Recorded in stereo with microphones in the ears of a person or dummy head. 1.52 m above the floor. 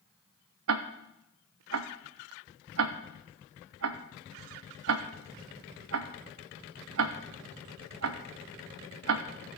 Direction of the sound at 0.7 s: 80° right.